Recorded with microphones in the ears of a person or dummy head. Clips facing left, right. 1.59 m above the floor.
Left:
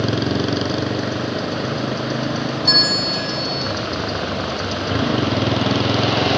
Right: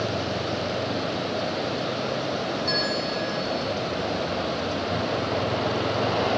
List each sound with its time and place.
0.0 s a motorcycle: 80° left
2.6 s a bell: 75° left (ahead or behind)